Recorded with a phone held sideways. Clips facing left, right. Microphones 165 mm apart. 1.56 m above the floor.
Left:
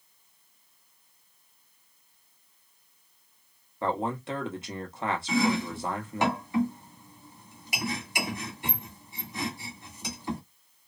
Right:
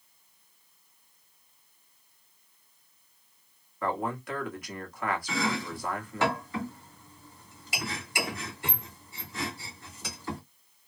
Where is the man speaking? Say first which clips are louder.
Left 2 dB; 25° left (ahead or behind), 1.0 m.